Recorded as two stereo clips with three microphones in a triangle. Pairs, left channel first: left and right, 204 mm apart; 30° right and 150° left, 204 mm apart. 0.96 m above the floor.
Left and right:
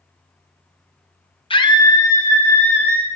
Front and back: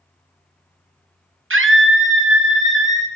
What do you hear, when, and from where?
1.5 s a scream: 150° left, 0.8 m; by 3.1 s 170° left, 1.7 m